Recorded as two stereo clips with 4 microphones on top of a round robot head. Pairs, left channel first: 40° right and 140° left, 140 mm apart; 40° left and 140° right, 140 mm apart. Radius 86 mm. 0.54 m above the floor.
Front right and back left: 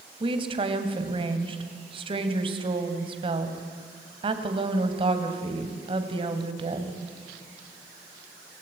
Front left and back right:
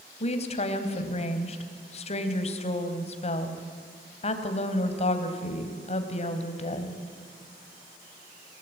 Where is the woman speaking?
85° left, 3 m.